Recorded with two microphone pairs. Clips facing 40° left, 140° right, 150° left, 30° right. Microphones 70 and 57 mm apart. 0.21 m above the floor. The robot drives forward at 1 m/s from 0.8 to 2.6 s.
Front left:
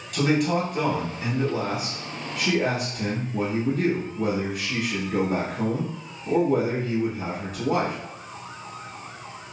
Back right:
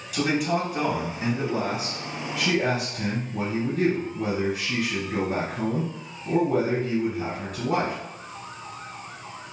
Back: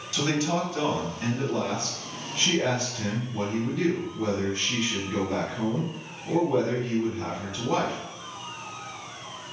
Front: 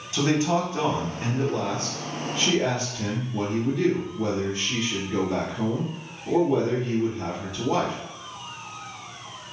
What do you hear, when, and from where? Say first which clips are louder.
0.1 s a man speaking: front left 2 dB, front 3 dB; 55° right, 1.1 m; by 8.0 s 160° right, 1.8 m